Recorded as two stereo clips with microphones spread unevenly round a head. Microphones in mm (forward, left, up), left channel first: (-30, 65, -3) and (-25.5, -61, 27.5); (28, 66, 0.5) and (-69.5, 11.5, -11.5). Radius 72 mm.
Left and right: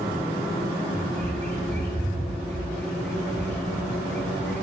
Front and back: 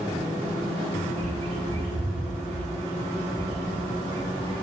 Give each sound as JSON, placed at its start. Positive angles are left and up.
{"t": 1.1, "sound": "a bird", "azimuth_deg": 180, "distance_m": 4.0}